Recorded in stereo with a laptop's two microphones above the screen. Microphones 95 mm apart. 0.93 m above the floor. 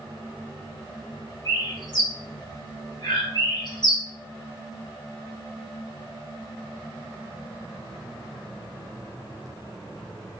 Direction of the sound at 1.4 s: 50° left (ahead or behind).